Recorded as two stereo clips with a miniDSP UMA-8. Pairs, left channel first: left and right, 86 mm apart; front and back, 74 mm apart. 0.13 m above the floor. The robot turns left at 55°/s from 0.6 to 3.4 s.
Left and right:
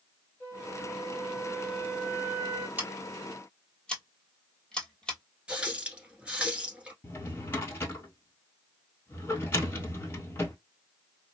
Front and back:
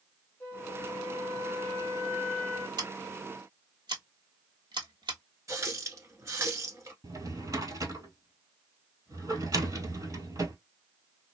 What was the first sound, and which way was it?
A flute, 40° left.